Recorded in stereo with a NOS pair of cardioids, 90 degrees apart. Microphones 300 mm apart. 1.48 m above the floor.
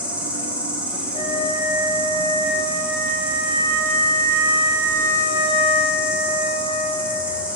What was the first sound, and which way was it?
An insect, 5° right.